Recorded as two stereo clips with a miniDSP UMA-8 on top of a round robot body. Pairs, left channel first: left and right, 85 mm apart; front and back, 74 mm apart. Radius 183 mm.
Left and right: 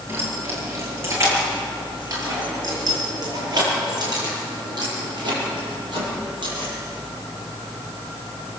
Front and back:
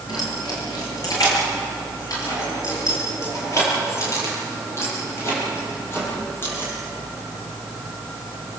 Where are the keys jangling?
25° right, 7 m; by 6.7 s 60° right, 12 m.